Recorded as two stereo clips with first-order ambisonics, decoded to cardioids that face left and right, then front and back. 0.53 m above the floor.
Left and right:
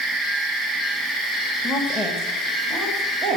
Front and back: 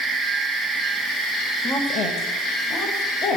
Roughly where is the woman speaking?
Ahead.